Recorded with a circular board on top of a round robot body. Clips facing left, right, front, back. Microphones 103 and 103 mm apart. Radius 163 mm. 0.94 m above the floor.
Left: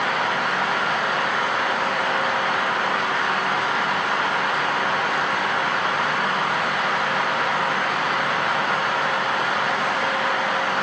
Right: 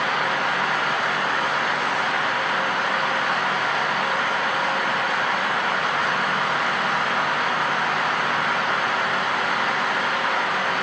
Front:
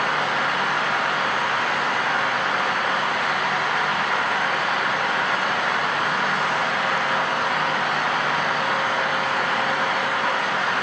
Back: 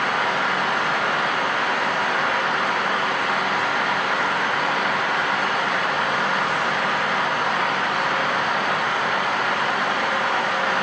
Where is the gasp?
I don't hear a gasp.